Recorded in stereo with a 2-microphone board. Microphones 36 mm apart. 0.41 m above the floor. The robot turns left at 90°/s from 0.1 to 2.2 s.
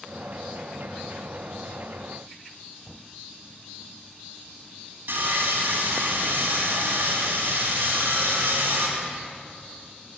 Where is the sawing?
70° right (ahead or behind), 2.5 m.